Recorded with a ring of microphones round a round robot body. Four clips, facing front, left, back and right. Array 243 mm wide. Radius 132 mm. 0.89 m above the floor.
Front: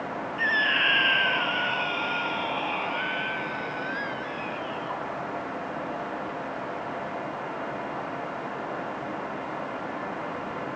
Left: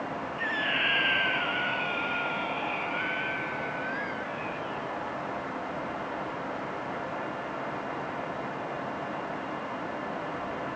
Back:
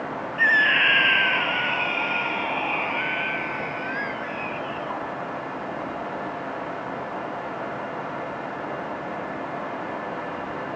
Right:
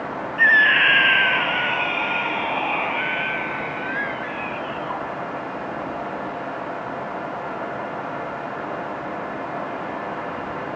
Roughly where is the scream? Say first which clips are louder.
Right 15 dB, back 6 dB; right.